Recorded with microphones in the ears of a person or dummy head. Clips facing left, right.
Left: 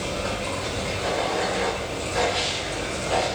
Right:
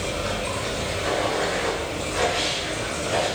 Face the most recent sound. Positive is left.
turn(degrees=55)  # may be behind; listen again after turning